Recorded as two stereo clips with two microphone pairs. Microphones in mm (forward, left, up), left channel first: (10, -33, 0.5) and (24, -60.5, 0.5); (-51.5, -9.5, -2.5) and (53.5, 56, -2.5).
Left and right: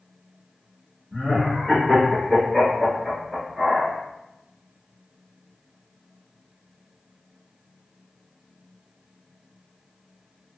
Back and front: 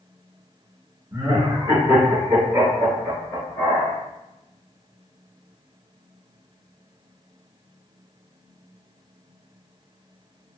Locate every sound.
1.1 s laughter: 40° left, 1.8 m; by 3.9 s 130° right, 1.6 m